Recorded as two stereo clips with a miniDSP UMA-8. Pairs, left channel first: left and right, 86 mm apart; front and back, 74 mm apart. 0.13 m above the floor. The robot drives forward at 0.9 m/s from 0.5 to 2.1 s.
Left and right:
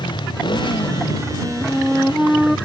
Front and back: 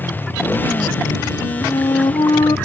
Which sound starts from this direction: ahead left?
A motorcycle, at 0.0 s.